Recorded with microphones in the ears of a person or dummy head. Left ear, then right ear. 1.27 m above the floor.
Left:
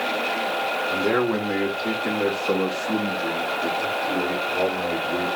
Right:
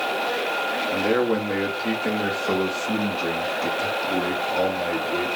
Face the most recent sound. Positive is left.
turn(degrees=-55)  # may be behind; listen again after turning